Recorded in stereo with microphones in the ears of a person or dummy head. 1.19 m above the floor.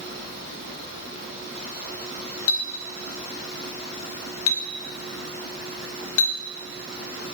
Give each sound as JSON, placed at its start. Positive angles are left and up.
{"t": 2.5, "sound": "a clink", "side_deg": 80, "distance_m": 0.6}